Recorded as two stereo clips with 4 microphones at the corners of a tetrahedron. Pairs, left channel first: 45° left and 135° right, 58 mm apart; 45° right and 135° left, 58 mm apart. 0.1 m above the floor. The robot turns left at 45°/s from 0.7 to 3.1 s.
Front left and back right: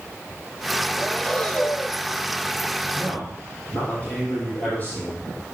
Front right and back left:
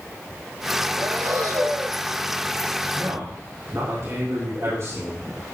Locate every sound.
1.0 s breathing: 140° left, 1.1 m; by 2.0 s 90° left, 1.1 m
2.9 s a man speaking: 110° left, 4.5 m; by 5.3 s 100° left, 4.5 m